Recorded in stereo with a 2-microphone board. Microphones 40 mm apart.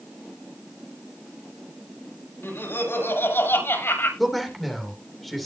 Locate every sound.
2.4 s laughter: 65° left (ahead or behind), 7.5 m
4.2 s a man speaking: 5° left (ahead or behind), 3 m